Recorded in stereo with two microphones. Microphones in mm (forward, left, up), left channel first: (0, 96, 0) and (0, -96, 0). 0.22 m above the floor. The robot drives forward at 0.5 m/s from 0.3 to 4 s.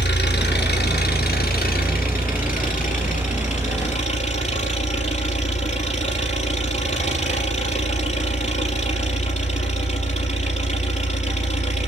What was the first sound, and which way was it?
An engine running, 60° left (ahead or behind).